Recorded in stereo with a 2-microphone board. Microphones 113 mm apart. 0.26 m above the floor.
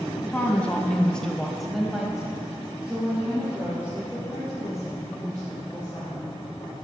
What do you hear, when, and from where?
0.2 s a woman speaking: 10° left (ahead or behind), 1.7 m; by 6.3 s 10° right (ahead or behind), 6 m